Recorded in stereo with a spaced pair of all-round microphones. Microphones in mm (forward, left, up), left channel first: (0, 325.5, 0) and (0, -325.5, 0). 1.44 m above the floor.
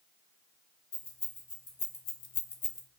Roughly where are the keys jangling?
Left.